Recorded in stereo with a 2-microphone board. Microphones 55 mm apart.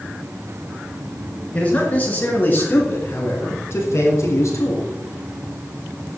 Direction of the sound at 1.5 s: 25° left (ahead or behind).